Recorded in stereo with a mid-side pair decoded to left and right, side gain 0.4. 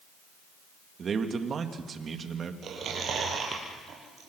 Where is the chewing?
65° right, 7 m.